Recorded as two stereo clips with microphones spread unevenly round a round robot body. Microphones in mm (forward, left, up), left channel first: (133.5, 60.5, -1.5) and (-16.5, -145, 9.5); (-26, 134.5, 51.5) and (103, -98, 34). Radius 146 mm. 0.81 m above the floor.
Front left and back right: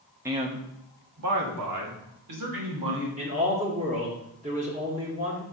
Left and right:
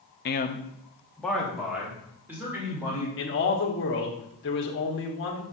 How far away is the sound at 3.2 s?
About 1.5 m.